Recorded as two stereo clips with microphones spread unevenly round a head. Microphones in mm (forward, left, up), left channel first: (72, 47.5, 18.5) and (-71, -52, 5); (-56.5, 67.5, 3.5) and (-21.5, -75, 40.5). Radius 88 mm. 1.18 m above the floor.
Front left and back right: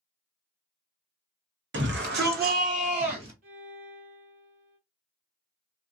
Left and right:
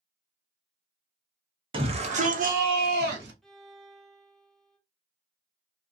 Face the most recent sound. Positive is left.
turn(degrees=-150)